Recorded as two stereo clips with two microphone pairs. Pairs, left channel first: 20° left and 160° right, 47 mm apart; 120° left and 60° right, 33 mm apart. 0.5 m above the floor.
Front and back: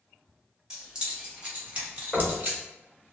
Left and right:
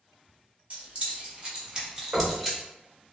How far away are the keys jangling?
About 1.2 m.